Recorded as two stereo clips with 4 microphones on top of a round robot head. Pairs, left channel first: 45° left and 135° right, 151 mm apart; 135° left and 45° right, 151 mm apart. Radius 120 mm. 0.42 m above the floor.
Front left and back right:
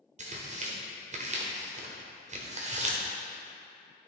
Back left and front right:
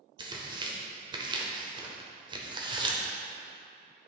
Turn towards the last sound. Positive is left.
turn(degrees=-100)